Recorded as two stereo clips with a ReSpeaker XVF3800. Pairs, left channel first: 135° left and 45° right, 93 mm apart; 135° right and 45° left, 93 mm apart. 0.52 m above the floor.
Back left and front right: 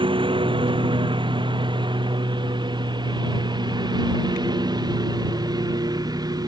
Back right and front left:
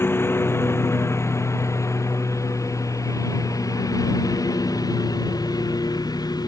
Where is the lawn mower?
70° right; by 6.5 s 90° right.